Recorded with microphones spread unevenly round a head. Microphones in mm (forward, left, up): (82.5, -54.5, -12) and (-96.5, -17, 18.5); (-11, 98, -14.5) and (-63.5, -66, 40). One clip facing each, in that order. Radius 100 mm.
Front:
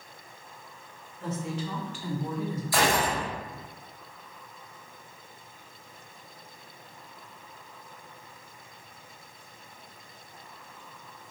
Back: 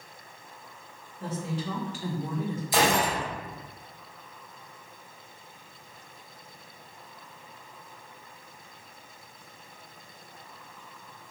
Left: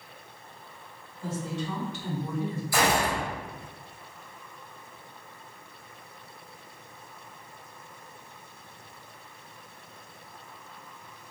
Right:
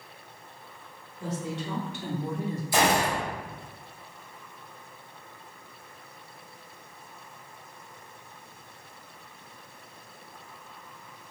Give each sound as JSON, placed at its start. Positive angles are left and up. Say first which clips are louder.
{"t": 1.2, "sound": "a woman speaking", "louder": "even, even", "azimuth_deg": -130, "distance_m": 2.5}
{"t": 2.7, "sound": "a gunshot", "louder": "back 1 dB, right 2 dB", "azimuth_deg": -140, "distance_m": 1.2}